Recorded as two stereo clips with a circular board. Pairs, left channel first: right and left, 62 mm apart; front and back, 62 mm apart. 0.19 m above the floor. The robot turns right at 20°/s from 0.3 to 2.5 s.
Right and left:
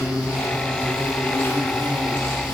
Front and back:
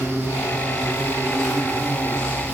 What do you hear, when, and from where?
0.0 s an insect: 105° right, 2 m; by 2.5 s 60° right, 2 m